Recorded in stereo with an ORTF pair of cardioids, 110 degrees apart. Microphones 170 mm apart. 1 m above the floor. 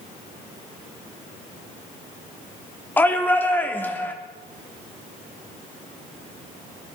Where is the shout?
10° left, 3 m.